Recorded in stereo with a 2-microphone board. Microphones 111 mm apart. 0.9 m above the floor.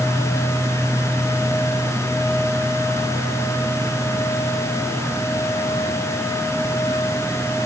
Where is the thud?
I don't hear a thud.